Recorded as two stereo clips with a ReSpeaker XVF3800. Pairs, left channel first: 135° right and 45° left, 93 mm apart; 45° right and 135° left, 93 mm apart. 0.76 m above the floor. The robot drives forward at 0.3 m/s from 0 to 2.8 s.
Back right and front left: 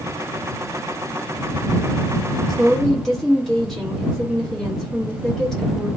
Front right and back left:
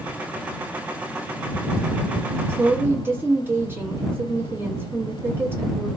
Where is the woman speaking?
135° left, 1.0 m; by 5.9 s 145° left, 1.0 m.